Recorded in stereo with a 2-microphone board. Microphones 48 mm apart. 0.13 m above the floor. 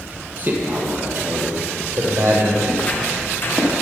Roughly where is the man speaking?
Right.